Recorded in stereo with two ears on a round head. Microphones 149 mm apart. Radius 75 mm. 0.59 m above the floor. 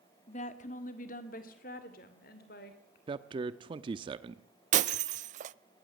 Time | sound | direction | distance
0.3 | a woman speaking | 40° left (ahead or behind) | 1.5 m
3.1 | a man speaking | 30° right (ahead or behind) | 0.8 m
4.7 | breaking glass | 45° right (ahead or behind) | 0.6 m